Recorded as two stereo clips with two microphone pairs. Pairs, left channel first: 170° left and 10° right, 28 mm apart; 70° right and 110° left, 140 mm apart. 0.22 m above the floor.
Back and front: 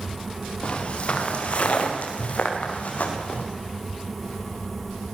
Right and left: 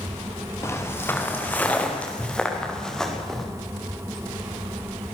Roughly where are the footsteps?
Behind right.